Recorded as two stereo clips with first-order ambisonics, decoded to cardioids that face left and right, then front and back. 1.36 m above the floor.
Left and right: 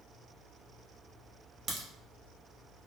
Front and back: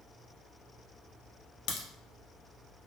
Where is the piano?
I don't hear a piano.